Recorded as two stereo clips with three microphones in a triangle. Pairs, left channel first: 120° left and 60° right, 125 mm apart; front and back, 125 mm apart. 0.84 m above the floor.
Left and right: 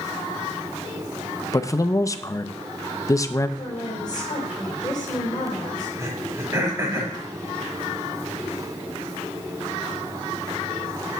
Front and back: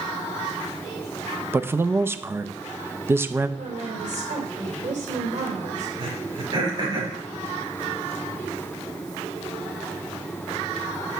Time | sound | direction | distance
1.5 | a man speaking | 135° left | 0.5 m
3.6 | a woman speaking | 175° left | 3 m
6.0 | throat clearing | 130° right | 5.5 m